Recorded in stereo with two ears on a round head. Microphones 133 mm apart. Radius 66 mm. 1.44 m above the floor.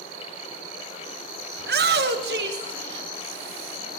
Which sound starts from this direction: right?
A shout, at 1.6 s.